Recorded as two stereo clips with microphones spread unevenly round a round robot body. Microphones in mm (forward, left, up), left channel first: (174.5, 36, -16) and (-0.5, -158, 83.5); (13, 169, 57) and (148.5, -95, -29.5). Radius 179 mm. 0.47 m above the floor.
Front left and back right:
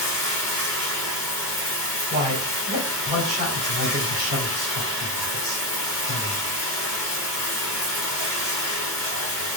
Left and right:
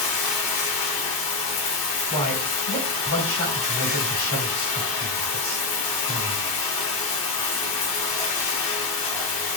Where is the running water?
120° left, 1.2 m.